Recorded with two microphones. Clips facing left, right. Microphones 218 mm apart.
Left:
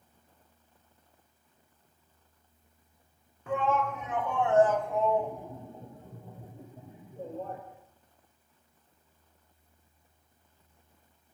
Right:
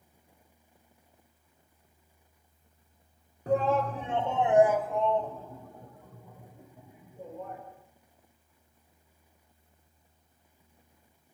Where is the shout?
40° right (ahead or behind), 2.0 m; by 7.6 s 35° left (ahead or behind), 4 m.